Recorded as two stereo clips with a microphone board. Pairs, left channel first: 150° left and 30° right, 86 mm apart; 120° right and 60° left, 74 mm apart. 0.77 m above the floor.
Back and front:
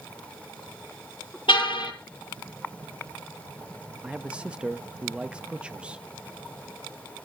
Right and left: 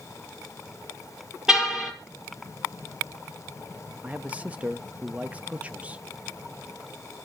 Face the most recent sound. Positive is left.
turn(degrees=25)